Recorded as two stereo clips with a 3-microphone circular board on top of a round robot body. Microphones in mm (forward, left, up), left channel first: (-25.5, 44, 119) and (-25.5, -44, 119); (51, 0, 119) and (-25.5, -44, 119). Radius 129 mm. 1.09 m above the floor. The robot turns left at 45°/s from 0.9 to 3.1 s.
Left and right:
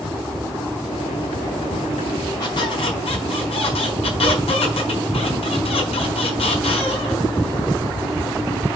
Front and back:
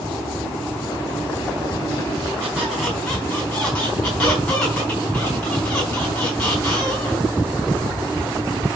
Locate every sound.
2.4 s a squeak: 140° left, 4.5 m; by 7.3 s 110° left, 4.5 m